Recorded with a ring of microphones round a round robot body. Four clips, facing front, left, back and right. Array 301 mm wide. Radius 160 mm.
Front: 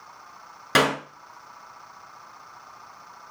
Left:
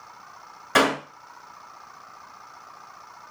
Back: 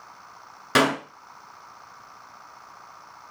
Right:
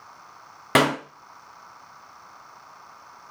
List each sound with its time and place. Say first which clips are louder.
0.8 s a clap: even, back 1 dB; 80° right, 3 m